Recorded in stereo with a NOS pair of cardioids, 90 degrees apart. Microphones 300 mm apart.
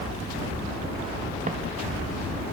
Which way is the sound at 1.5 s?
25° right.